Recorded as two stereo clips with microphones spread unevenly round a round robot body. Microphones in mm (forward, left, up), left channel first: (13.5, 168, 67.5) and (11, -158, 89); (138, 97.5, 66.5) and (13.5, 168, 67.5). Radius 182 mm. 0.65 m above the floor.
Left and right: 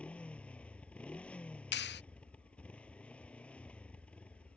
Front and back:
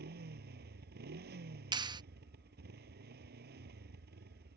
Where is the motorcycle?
175° left.